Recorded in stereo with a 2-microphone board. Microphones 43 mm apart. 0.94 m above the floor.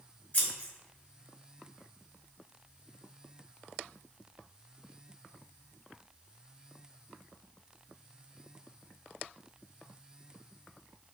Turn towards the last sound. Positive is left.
turn(degrees=35)  # may be behind; listen again after turning